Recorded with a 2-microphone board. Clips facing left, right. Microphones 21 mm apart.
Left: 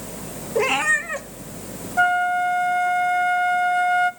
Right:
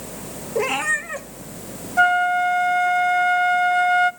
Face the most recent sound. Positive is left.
turn(degrees=-15)  # may be behind; listen again after turning